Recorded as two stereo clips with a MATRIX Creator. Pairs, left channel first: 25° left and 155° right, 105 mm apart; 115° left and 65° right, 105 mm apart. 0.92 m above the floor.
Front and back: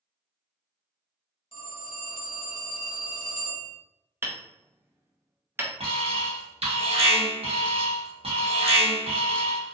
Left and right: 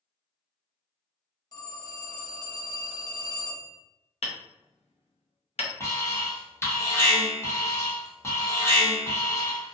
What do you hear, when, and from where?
1.5 s a phone ringing: 60° left, 0.9 m
4.2 s hammering: 135° left, 0.5 m
5.8 s an alarm: straight behind, 0.9 m